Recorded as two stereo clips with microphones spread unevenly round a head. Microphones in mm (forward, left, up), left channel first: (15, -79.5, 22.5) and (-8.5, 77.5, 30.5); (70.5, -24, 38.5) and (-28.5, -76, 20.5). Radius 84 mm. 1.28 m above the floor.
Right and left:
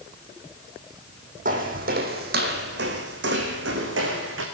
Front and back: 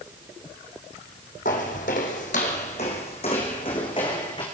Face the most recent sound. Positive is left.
turn(degrees=90)